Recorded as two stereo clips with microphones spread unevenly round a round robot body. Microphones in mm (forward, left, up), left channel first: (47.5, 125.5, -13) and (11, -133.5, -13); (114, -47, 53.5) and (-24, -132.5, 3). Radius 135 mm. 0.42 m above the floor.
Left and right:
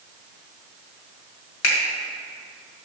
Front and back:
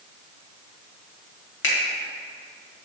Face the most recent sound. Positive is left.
turn(degrees=40)